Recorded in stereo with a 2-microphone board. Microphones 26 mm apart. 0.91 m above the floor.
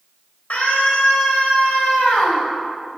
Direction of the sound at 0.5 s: 65° left (ahead or behind).